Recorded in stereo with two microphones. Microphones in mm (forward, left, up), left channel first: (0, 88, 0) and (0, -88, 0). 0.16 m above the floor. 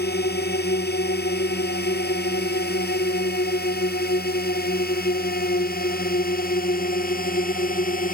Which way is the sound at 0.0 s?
70° left (ahead or behind).